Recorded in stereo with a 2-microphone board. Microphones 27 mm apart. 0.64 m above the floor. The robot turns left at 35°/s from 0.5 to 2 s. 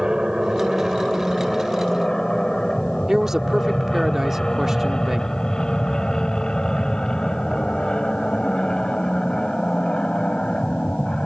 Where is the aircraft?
30° right (ahead or behind); by 11.3 s 35° left (ahead or behind).